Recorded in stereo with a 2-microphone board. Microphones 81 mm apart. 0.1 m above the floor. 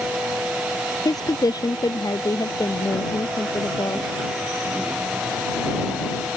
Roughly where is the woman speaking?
Left.